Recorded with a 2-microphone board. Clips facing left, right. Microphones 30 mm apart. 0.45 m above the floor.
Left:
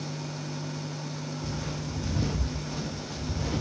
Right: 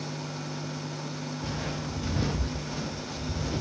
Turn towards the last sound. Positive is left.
turn(degrees=15)  # may be behind; listen again after turning